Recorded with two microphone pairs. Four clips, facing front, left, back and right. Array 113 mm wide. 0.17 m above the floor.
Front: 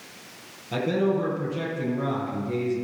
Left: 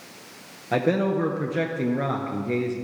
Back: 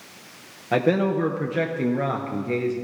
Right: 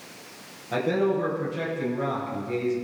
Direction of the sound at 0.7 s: 155° left.